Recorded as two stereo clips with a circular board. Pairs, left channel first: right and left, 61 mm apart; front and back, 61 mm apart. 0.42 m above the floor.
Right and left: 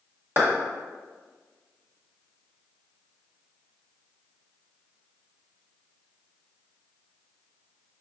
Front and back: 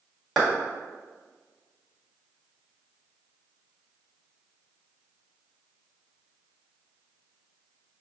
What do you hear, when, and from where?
0.4 s a clap: 95° left, 1.4 m